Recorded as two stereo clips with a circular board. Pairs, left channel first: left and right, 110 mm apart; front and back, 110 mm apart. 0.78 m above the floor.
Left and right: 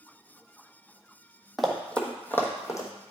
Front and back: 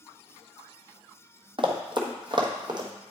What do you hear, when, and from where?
1.6 s running footsteps: straight behind, 1.1 m; by 2.9 s 145° left, 1.4 m